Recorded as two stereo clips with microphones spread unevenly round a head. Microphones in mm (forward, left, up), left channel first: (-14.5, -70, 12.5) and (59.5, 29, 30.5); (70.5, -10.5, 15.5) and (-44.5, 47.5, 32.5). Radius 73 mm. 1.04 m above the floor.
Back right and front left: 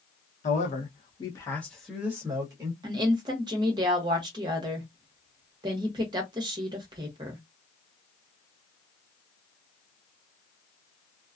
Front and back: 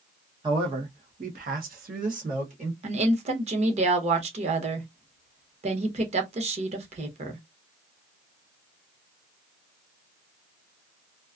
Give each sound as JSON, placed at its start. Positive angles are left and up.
{"t": 0.4, "sound": "a man speaking", "azimuth_deg": -145, "distance_m": 1.0}
{"t": 2.8, "sound": "a woman speaking", "azimuth_deg": 115, "distance_m": 0.9}